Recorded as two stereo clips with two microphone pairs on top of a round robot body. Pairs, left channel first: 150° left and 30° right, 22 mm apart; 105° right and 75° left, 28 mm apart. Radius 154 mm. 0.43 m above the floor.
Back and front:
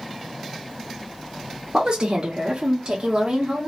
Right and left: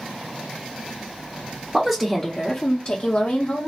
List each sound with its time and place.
1.7 s a woman speaking: 5° right, 0.9 m; by 3.7 s 90° right, 1.3 m